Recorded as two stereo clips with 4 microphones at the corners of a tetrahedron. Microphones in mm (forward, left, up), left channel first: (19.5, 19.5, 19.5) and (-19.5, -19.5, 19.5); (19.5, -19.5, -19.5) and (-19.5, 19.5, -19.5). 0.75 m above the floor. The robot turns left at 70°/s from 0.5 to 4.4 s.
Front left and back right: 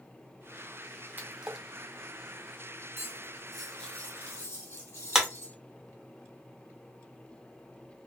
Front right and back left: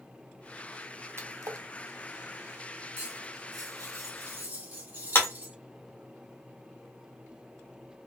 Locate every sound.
1.2 s a splash: 170° left, 0.6 m; by 1.7 s 135° left, 0.6 m
3.0 s cutlery clinking: straight behind, 1.2 m; by 5.5 s 80° left, 1.2 m
5.2 s a clap: 55° right, 0.8 m